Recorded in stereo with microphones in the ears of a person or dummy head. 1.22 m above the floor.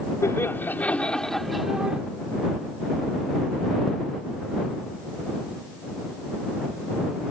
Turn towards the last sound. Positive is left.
turn(degrees=-10)  # may be behind; listen again after turning